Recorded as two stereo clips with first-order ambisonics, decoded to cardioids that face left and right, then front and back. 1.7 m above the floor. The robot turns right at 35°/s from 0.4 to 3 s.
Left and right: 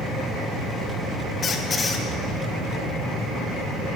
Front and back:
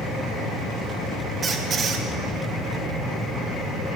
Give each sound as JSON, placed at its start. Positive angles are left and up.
{"t": 1.4, "sound": "a squeak", "azimuth_deg": 135, "distance_m": 0.8}